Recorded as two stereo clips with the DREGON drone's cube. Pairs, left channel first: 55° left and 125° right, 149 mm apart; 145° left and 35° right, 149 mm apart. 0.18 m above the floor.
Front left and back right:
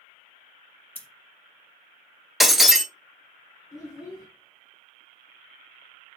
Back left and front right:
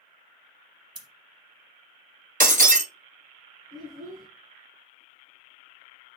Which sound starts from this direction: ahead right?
Breaking glass, at 2.4 s.